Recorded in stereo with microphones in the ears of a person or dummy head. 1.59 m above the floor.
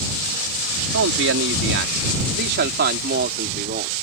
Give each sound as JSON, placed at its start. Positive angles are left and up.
{"t": 0.9, "sound": "a man speaking", "side_deg": -80}